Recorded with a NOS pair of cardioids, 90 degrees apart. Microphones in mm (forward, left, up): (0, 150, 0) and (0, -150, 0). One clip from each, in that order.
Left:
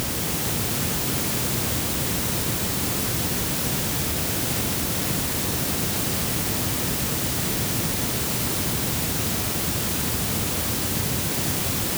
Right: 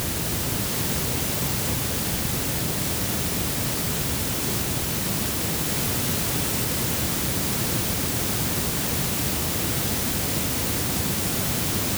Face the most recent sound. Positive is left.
No sound to turn to.